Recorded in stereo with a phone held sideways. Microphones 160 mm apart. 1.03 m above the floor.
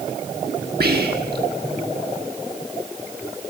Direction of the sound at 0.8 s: 80° right.